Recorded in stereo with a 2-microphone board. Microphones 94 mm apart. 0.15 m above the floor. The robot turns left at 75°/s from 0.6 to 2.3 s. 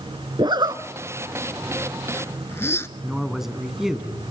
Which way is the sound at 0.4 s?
55° right (ahead or behind).